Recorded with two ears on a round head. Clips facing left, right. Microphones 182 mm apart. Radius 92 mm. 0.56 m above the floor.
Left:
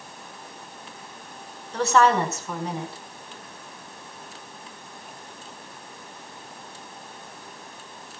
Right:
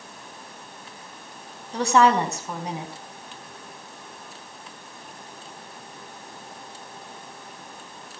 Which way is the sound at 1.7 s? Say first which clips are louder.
Right 1 dB; 15° right (ahead or behind).